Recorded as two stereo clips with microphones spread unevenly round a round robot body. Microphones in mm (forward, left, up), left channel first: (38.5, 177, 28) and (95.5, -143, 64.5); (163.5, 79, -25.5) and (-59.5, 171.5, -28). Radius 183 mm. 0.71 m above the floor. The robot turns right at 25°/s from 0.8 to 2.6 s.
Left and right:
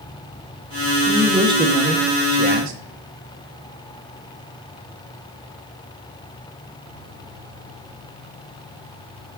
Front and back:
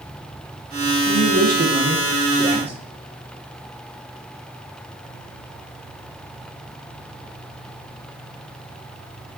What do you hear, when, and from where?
1.1 s a man speaking: 170° right, 0.6 m; by 2.8 s 130° right, 0.6 m